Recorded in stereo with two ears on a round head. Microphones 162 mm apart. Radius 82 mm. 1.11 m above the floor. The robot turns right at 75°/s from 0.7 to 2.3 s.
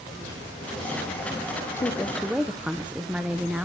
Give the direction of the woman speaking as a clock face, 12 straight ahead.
7 o'clock.